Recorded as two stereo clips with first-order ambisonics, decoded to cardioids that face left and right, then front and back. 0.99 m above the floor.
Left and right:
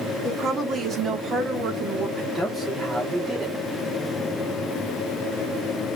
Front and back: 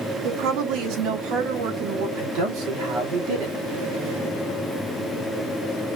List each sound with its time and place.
0.2 s a woman speaking: 155° right, 1.3 m
2.2 s a man speaking: straight behind, 2.5 m